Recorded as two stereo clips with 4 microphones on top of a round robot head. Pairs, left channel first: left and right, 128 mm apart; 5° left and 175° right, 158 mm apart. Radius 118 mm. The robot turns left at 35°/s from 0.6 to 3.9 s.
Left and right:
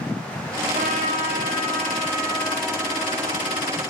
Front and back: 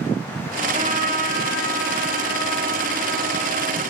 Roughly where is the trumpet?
Behind right.